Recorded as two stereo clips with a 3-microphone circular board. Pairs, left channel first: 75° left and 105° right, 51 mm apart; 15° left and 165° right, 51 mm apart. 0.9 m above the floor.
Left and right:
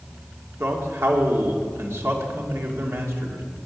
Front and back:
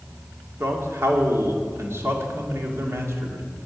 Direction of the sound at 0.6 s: 135° right.